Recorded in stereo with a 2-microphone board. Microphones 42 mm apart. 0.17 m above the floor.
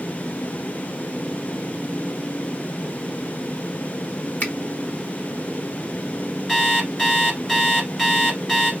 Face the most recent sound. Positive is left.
turn(degrees=5)  # may be behind; listen again after turning